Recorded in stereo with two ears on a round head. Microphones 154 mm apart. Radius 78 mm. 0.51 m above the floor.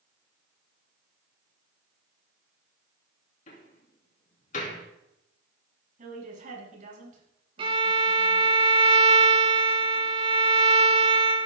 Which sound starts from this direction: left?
A door slam, at 3.5 s.